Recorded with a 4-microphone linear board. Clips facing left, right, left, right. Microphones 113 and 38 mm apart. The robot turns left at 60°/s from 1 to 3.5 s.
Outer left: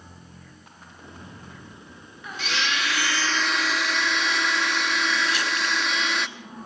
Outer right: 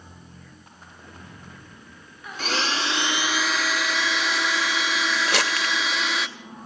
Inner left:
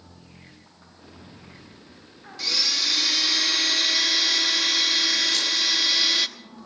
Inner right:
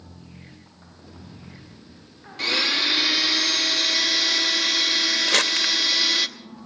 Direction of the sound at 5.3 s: 75° right (ahead or behind).